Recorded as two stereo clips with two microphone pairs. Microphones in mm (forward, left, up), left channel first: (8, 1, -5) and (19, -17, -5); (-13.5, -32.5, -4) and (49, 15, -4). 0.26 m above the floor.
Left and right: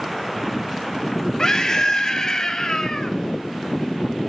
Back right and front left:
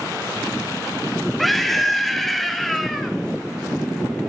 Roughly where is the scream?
Behind left.